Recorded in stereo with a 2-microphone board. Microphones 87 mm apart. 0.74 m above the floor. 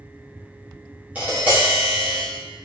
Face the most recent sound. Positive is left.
turn(degrees=-20)  # may be behind; listen again after turning